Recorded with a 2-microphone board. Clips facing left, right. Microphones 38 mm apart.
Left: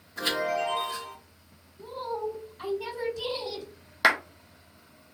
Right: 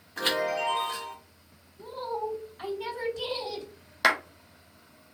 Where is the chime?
50° right (ahead or behind), 1.3 m.